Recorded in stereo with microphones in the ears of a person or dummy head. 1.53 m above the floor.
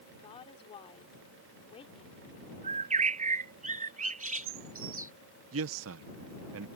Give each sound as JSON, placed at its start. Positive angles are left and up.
{"t": 0.1, "sound": "a woman speaking", "side_deg": 35}
{"t": 2.6, "sound": "a bird", "side_deg": -40}
{"t": 5.5, "sound": "a man speaking", "side_deg": -80}